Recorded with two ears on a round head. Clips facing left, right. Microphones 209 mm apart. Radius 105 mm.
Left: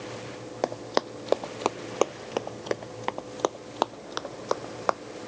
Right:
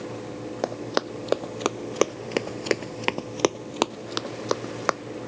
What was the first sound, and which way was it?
Running footsteps, 5° right (ahead or behind).